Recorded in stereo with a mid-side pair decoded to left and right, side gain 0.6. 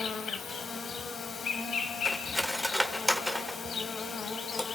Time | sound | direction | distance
0.0 | an insect | 35° left | 1.9 m
2.0 | cutlery clinking | 5° right | 1.8 m